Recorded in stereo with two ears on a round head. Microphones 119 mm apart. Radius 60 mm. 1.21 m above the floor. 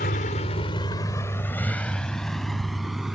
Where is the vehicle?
75° left (ahead or behind); by 3.1 s 5° right (ahead or behind).